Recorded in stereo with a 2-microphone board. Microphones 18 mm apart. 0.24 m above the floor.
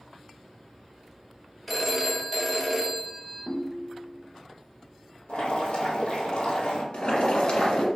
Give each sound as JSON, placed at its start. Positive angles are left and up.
{"t": 1.7, "sound": "a phone ringing", "side_deg": 0, "distance_m": 0.7}
{"t": 3.5, "sound": "a ringtone", "side_deg": -5, "distance_m": 0.6}
{"t": 5.3, "sound": "boiling", "side_deg": 65, "distance_m": 1.5}
{"t": 6.9, "sound": "boiling", "side_deg": 50, "distance_m": 1.1}